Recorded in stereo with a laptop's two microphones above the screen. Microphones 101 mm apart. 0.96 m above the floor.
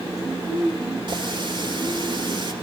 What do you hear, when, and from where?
1.1 s a running tap: 50° right (ahead or behind), 1.9 m